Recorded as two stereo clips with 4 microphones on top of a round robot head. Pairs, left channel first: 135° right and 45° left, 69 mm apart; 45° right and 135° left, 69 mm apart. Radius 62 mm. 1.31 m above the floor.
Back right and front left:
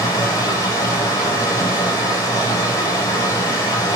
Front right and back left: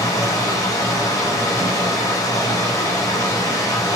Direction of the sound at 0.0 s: 85° right.